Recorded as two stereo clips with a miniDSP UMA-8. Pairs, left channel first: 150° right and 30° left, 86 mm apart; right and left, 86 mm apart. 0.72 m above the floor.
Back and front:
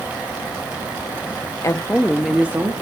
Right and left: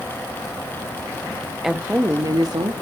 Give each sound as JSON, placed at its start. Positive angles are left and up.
{"t": 1.6, "sound": "a woman speaking", "azimuth_deg": 175, "distance_m": 0.6}